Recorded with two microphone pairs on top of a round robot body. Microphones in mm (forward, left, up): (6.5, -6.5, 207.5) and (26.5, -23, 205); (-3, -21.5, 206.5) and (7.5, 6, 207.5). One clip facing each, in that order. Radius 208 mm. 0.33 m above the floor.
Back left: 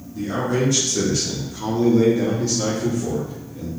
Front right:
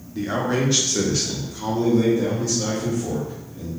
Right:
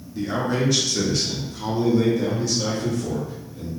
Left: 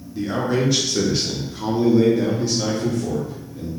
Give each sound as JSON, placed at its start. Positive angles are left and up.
{"t": 0.1, "sound": "a man speaking", "azimuth_deg": -20, "distance_m": 1.2}